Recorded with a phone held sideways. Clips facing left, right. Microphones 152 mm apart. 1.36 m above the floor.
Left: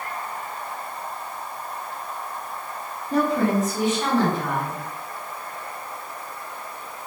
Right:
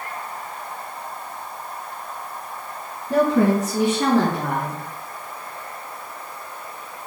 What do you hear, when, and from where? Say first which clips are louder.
3.1 s a woman speaking: right 4 dB; 70° right (ahead or behind), 1.5 m